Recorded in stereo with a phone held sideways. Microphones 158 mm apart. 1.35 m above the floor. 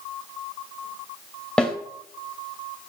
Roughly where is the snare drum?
Centre.